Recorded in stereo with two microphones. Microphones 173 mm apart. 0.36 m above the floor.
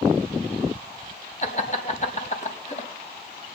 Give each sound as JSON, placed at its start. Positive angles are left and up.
{"t": 1.4, "sound": "laughter", "side_deg": 45, "distance_m": 3.0}